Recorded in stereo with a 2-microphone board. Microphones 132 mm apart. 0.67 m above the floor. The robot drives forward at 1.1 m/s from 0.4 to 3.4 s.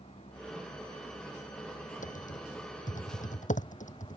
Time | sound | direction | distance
0.0 | a vehicle | 45° left (ahead or behind) | ?
2.0 | typing on a keyboard | 75° left (ahead or behind) | ?